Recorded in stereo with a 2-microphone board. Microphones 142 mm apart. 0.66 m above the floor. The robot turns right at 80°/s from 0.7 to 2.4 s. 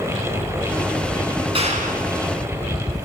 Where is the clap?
140° right, 5.5 m; by 2.1 s 95° right, 5.5 m.